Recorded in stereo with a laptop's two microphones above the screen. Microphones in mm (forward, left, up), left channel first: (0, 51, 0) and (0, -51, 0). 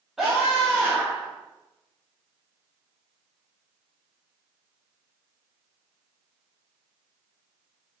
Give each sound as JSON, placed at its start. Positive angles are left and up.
{"t": 0.2, "sound": "a scream", "side_deg": -5, "distance_m": 1.3}